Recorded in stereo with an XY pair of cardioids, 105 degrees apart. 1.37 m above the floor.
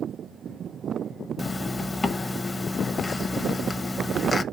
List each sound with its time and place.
1.4 s a zipper: 25° left, 1.1 m